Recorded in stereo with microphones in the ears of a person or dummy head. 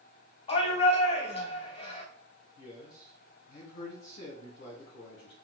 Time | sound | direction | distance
0.5 | a shout | 35° left (ahead or behind) | 0.9 m
2.6 | a man speaking | 40° left (ahead or behind) | 1.0 m